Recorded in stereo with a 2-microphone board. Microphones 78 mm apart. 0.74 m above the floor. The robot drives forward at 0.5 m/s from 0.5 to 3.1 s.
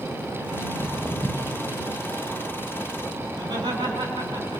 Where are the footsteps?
10° left (ahead or behind), 2.5 m.